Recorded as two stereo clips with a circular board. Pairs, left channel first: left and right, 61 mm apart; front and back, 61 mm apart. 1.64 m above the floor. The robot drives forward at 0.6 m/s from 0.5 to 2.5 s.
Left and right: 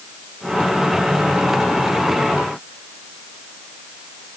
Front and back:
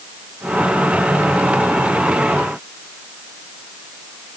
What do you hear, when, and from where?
Only background noise.